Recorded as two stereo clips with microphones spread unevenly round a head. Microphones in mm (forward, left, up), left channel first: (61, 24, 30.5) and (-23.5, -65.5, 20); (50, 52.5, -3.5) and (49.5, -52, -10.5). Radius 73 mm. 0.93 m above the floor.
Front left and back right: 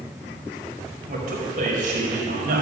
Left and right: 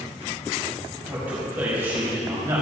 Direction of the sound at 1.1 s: 170° right.